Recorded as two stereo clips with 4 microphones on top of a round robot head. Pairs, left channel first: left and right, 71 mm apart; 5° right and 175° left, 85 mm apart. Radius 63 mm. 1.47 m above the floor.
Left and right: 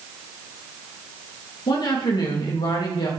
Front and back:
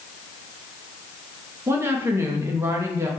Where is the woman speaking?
115° left, 2.5 m.